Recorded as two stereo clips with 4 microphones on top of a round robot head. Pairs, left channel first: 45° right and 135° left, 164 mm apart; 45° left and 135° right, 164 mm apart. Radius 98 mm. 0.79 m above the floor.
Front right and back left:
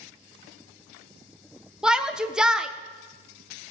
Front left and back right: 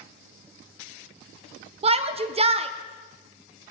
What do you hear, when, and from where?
1.8 s a shout: 140° right, 0.5 m